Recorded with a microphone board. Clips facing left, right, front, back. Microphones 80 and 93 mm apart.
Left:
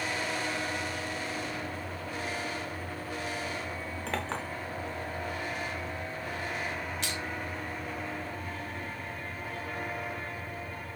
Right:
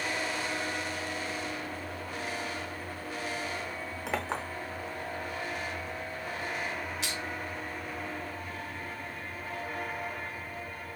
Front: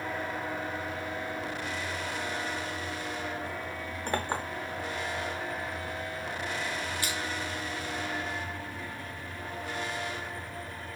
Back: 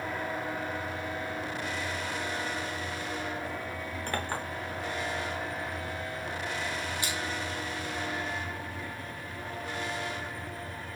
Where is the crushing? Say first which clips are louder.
Left 1 dB, even; 170° right, 0.9 m.